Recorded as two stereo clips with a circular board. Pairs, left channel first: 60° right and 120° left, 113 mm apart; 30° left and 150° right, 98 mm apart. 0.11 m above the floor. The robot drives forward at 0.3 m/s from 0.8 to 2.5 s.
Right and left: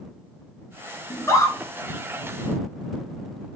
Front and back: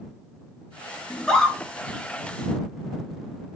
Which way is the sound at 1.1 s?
40° right.